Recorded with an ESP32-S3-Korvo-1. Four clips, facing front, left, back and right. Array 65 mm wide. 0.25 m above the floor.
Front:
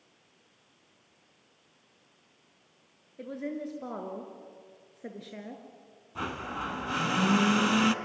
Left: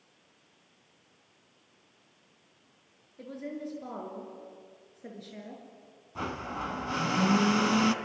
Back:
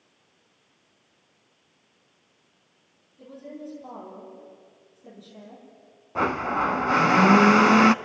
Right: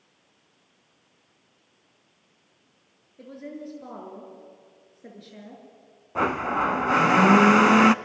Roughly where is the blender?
Behind right.